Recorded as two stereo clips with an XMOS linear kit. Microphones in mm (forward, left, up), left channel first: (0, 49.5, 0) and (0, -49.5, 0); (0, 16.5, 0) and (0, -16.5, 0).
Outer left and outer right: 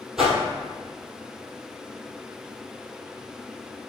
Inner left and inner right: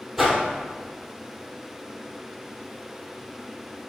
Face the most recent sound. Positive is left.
turn(degrees=-5)  # may be behind; listen again after turning